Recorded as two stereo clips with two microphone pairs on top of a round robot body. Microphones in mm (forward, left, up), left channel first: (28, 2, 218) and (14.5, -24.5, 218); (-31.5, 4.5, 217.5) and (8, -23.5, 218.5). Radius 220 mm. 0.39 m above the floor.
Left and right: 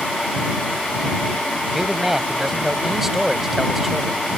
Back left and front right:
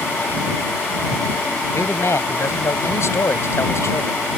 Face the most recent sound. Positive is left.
turn(degrees=165)